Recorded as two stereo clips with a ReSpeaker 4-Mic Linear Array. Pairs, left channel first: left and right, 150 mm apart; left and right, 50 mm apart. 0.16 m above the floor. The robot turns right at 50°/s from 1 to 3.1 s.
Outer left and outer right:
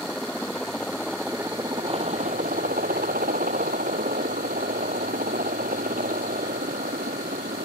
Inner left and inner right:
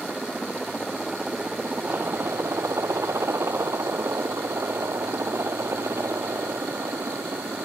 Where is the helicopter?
175° left; by 7.7 s 80° right.